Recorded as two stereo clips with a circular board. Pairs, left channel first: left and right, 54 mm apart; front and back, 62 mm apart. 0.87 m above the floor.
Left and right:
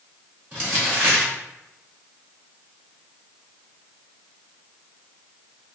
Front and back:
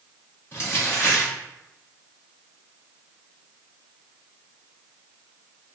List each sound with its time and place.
0.5 s crumpling: 45° right, 1.8 m